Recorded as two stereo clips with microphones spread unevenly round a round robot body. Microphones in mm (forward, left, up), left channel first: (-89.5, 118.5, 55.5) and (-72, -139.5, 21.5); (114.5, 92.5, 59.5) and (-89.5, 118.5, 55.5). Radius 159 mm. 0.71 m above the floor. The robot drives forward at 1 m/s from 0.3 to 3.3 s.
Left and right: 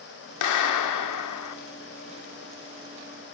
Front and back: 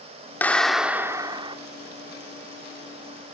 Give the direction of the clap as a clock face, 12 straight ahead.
10 o'clock.